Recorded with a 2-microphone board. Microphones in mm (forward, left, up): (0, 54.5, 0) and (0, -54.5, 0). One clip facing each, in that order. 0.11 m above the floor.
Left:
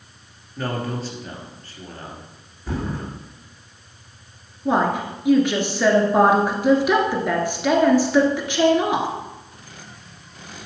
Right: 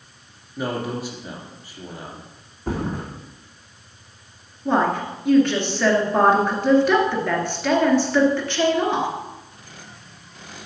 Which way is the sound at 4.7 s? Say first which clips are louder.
Even; 10° left (ahead or behind).